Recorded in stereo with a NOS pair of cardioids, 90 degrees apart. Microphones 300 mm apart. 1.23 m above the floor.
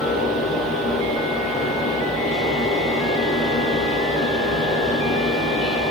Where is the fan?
Straight ahead, 1.4 m.